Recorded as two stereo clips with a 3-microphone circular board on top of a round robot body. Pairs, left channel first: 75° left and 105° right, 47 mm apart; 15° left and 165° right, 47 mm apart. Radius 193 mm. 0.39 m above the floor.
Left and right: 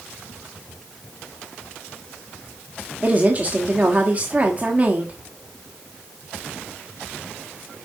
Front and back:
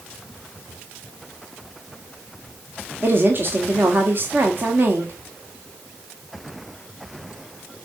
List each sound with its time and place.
3.0 s a woman speaking: 150° right, 1.8 m